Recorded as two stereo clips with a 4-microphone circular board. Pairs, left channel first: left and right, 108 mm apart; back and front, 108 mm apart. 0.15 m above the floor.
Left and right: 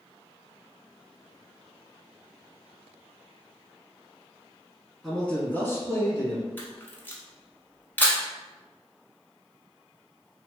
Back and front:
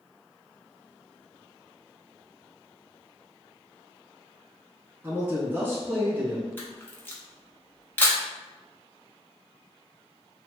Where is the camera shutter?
135° left, 0.7 m.